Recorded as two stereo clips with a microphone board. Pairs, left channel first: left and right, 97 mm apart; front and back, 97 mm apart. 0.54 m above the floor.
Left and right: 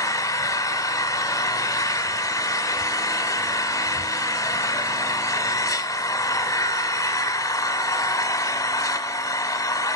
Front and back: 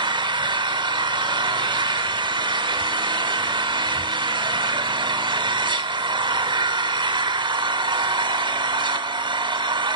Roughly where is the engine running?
Behind left.